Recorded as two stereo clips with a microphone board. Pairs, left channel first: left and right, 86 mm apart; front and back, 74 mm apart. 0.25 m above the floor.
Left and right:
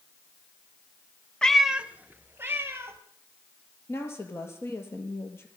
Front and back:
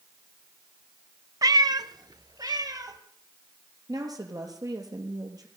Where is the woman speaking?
150° left, 5 m.